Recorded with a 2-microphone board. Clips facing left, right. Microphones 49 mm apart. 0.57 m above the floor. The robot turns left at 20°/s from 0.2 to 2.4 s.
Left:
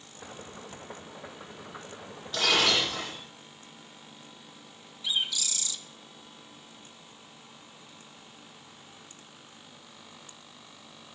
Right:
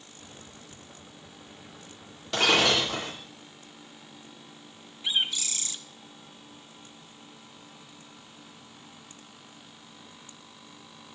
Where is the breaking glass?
90° right, 9 m; by 3.1 s 85° right, 9 m.